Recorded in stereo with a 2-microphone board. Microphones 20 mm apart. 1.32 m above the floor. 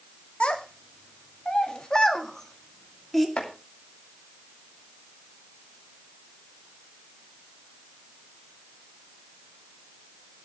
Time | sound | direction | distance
0.4 | a child speaking | 80° left | 2.5 m
3.4 | chopping | 80° left | 2.5 m